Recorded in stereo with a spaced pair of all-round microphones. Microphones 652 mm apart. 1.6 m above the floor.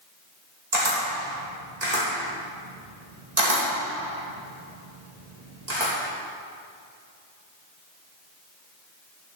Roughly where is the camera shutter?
Right.